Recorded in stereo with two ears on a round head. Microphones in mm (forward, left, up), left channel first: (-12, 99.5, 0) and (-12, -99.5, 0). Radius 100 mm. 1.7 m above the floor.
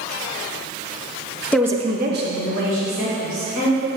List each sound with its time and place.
1.5 s a woman speaking: 10° left (ahead or behind), 0.6 m; by 3.9 s 75° right (ahead or behind), 3.5 m